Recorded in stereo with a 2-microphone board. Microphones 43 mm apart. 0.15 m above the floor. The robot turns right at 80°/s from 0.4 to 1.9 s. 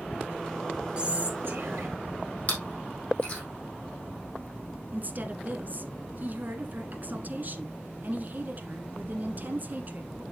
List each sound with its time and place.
1.0 s whispering: 155° right, 3.5 m; by 1.9 s 80° right, 3.5 m
2.5 s chewing: 35° left (ahead or behind), 4.5 m
4.9 s a woman speaking: 45° right (ahead or behind), 1.5 m